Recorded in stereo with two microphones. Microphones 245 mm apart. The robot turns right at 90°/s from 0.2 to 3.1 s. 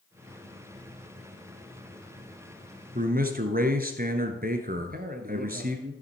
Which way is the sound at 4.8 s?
40° right (ahead or behind).